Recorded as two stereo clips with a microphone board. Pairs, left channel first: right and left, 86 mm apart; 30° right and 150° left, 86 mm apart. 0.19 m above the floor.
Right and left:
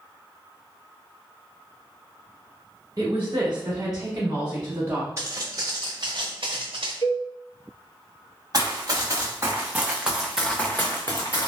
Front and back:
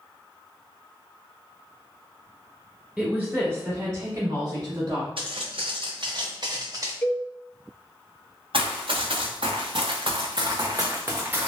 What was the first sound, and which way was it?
A woman speaking, 65° left.